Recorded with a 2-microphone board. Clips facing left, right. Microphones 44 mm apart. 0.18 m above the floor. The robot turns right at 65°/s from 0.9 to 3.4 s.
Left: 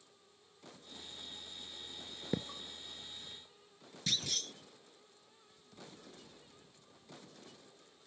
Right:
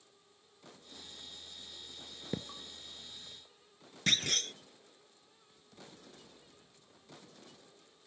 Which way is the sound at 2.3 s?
10° left (ahead or behind).